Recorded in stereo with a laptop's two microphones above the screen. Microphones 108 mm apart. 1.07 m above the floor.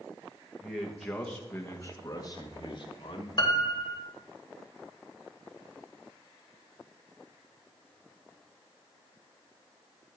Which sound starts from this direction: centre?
A man speaking, at 0.6 s.